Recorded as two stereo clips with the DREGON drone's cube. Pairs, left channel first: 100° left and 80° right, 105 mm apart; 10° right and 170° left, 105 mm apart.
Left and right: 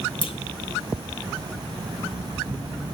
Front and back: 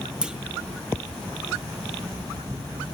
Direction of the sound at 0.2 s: 90° left.